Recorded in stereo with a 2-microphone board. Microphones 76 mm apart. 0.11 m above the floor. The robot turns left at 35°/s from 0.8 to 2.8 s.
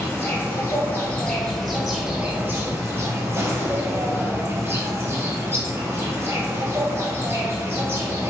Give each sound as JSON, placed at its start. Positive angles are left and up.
{"t": 0.0, "sound": "an insect", "azimuth_deg": 30, "distance_m": 0.7}